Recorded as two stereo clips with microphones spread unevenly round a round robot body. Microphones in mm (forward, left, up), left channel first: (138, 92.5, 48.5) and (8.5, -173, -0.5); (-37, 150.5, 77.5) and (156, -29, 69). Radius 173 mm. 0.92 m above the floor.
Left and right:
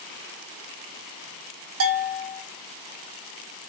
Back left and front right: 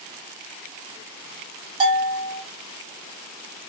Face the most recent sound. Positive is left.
turn(degrees=-110)